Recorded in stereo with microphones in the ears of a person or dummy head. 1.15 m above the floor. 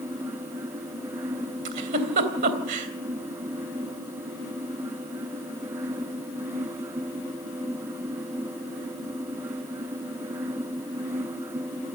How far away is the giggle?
About 3 m.